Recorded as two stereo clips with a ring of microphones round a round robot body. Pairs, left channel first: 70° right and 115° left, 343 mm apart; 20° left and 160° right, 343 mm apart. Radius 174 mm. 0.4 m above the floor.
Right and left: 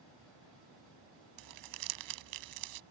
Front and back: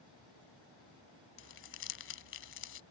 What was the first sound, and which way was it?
Crumpling, 80° left.